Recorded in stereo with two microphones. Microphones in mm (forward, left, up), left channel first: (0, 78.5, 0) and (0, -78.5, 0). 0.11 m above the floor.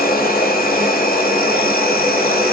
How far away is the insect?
About 2 m.